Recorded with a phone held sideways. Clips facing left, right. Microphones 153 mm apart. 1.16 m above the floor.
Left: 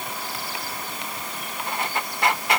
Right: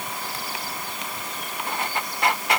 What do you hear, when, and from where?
Only background noise.